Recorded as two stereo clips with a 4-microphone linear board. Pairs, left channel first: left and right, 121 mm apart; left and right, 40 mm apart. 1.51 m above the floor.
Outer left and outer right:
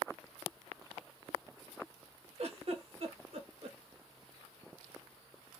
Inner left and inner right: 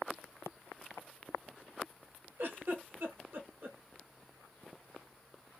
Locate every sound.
2.4 s a giggle: 60° right (ahead or behind), 1.5 m